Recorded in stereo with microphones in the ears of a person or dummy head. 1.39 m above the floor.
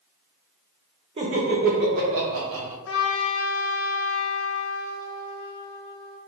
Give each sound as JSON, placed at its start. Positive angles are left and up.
{"t": 1.2, "sound": "laughter", "side_deg": -25, "distance_m": 1.2}
{"t": 2.9, "sound": "a trumpet", "side_deg": 65, "distance_m": 0.8}